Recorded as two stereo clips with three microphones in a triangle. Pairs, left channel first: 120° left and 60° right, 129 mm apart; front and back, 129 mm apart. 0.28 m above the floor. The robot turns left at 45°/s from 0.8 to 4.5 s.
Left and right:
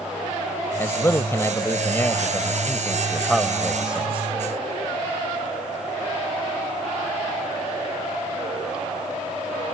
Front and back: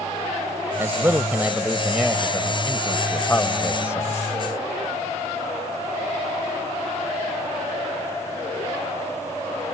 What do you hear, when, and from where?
0.8 s a man speaking: 150° left; by 4.2 s 5° right